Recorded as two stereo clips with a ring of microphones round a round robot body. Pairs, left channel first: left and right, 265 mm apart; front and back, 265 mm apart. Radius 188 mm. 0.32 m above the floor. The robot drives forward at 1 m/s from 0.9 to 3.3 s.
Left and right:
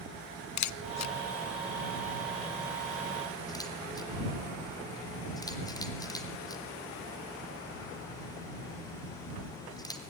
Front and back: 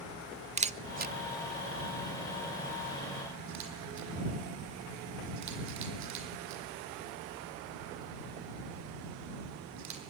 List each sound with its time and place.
0.6 s a camera shutter: 110° left, 0.7 m; by 10.0 s 165° left, 2.5 m